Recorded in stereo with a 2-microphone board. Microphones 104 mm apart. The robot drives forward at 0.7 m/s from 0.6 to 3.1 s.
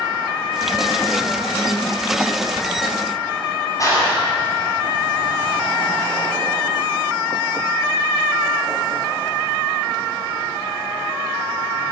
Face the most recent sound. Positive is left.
turn(degrees=35)  # may be behind; listen again after turning